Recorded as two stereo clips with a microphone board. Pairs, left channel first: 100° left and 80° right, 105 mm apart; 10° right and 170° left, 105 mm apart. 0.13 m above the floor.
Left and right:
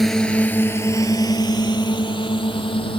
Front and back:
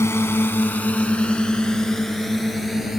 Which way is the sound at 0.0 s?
15° left.